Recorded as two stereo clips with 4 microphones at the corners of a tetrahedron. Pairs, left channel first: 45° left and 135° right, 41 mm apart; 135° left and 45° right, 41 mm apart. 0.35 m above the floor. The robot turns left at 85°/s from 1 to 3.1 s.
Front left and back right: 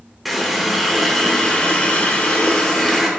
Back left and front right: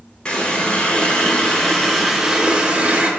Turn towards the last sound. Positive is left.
turn(degrees=-45)